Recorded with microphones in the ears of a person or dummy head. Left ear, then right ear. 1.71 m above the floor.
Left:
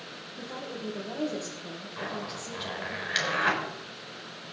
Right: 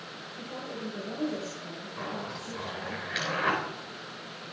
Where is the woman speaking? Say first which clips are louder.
Left 1 dB; 40° left (ahead or behind), 2 m.